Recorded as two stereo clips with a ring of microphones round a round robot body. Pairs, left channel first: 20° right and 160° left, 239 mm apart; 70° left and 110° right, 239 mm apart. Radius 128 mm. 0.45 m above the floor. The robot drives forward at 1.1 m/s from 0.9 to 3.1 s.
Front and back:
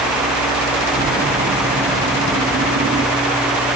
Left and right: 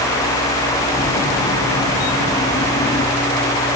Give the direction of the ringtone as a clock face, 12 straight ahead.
I don't hear a ringtone.